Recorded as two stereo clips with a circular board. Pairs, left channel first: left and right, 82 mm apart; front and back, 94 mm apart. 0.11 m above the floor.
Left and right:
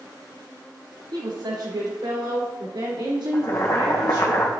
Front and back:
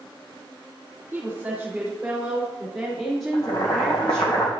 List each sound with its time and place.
1.1 s a woman speaking: 110° right, 3.5 m; by 4.3 s 80° right, 4 m
3.3 s boiling: 45° left, 2 m